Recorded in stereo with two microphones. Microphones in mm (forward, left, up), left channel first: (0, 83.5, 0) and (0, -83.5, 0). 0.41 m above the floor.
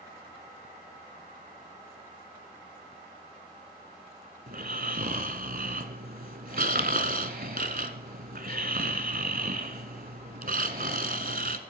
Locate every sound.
4.5 s snoring: 65° right (ahead or behind), 1.0 m